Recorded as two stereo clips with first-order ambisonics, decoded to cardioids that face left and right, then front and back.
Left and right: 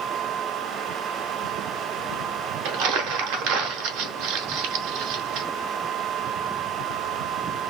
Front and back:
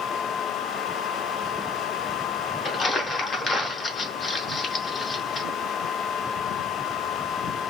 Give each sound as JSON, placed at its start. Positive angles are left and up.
{"t": 2.6, "sound": "crumpling", "azimuth_deg": -75, "distance_m": 0.8}